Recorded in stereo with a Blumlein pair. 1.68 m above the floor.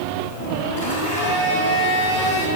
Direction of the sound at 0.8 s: 65° left.